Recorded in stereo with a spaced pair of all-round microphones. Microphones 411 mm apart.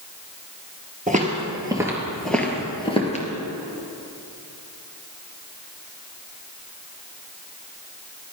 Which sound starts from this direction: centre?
Footsteps, at 1.1 s.